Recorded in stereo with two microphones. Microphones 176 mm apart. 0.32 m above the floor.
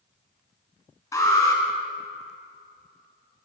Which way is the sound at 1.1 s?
20° left (ahead or behind).